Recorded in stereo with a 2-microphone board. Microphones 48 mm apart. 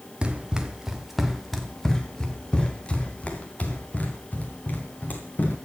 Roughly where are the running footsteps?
Right.